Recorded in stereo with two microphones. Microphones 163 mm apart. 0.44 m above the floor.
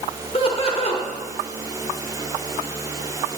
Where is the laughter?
40° left (ahead or behind), 1.0 m.